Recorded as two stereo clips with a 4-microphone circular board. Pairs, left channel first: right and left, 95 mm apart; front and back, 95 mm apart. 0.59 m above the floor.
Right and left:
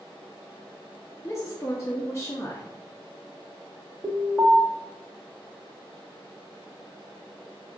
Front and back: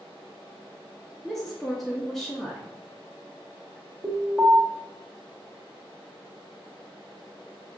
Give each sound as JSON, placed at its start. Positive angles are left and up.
{"t": 1.2, "sound": "a woman speaking", "azimuth_deg": -80, "distance_m": 0.6}
{"t": 4.0, "sound": "an alarm", "azimuth_deg": 165, "distance_m": 1.4}